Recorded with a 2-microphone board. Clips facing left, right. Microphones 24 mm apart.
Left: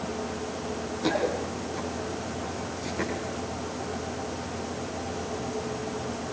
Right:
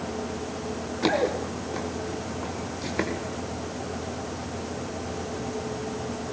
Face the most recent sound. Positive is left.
turn(degrees=-35)  # may be behind; listen again after turning